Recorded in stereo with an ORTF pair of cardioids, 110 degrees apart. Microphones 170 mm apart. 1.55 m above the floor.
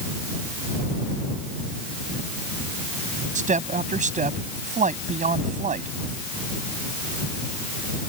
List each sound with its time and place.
3.4 s a woman speaking: 45° right